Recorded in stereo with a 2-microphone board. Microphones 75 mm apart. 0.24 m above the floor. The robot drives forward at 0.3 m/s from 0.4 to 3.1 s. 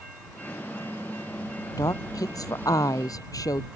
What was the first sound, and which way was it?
A woman speaking, 55° left (ahead or behind).